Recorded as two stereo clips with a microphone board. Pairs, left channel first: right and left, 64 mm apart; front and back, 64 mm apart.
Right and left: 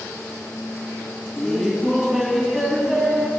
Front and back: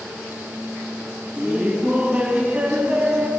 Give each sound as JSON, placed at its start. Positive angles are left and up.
{"t": 1.4, "sound": "laughter", "azimuth_deg": 170, "distance_m": 1.0}